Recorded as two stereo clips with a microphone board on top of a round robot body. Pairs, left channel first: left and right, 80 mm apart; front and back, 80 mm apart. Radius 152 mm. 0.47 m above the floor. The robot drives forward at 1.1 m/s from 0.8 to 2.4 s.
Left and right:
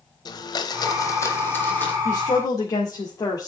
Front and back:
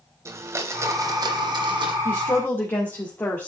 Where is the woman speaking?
50° left, 2 m; by 3.5 s 60° left, 1.9 m.